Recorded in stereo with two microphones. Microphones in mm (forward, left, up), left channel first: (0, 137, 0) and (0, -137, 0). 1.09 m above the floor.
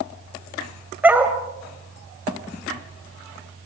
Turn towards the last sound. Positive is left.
turn(degrees=-5)  # may be behind; listen again after turning